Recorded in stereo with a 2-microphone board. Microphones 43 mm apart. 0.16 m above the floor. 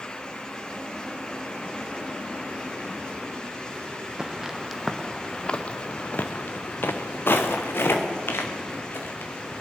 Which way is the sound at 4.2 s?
15° right (ahead or behind).